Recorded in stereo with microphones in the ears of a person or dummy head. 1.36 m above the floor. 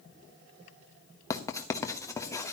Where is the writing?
20° left (ahead or behind), 1.1 m.